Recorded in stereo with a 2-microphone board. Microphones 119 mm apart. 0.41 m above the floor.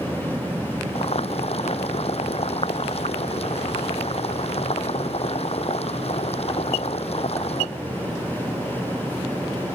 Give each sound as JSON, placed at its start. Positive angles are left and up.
{"t": 0.9, "sound": "boiling", "side_deg": 60}